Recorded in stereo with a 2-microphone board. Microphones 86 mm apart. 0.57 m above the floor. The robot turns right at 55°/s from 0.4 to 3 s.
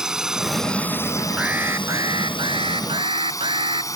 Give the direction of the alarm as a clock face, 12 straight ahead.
6 o'clock.